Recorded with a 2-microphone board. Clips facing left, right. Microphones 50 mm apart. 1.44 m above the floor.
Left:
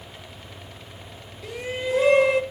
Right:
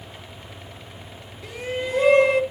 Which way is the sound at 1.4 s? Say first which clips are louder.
Even; centre (ahead or behind).